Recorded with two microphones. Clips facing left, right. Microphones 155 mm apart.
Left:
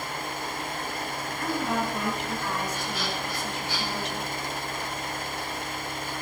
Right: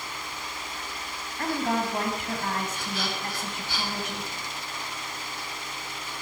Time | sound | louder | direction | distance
1.4 | a woman speaking | right 2 dB | 50° right (ahead or behind) | 2.5 m